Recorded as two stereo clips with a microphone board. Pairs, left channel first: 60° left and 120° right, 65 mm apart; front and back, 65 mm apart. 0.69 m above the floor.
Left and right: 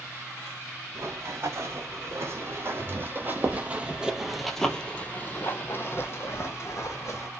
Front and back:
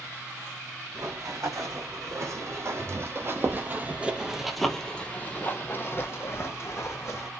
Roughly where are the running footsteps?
Behind right.